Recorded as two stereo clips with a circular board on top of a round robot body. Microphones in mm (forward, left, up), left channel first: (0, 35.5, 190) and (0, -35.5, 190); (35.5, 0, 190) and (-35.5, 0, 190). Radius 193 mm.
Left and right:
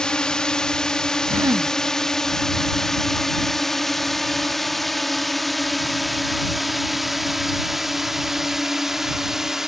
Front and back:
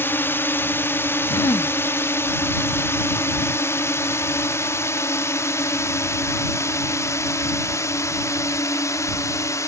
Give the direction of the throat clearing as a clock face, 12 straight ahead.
1 o'clock.